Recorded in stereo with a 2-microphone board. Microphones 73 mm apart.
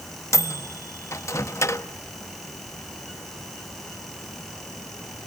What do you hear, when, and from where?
0.3 s a microwave: 45° left (ahead or behind), 1.3 m